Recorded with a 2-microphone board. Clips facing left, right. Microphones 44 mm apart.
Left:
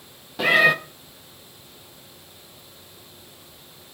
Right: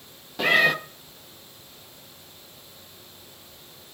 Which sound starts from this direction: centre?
A cat meowing, at 0.4 s.